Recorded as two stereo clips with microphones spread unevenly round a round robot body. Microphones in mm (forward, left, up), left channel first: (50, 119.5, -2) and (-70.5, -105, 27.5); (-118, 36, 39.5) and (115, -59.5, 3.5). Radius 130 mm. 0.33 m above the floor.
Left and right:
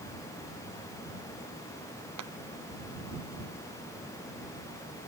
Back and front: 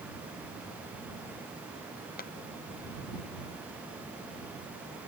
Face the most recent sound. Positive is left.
turn(degrees=-145)